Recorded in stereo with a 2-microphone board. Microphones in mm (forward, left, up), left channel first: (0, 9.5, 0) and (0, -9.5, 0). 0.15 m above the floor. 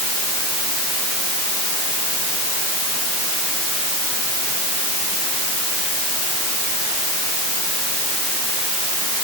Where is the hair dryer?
No hair dryer in this recording.